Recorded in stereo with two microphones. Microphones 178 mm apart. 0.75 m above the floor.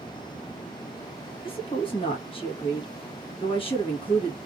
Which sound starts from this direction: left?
A woman speaking, at 1.4 s.